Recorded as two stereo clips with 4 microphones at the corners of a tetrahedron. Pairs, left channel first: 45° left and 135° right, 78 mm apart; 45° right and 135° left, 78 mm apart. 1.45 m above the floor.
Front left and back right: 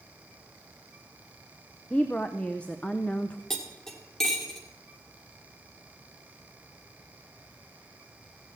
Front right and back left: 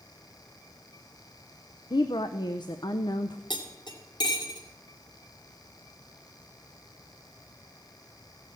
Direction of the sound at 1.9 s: 30° right.